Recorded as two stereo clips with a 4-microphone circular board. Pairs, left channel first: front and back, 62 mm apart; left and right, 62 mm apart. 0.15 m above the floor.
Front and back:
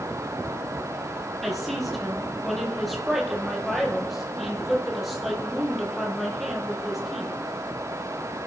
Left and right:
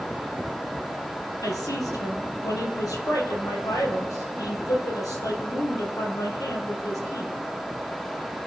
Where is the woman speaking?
90° left, 5 m.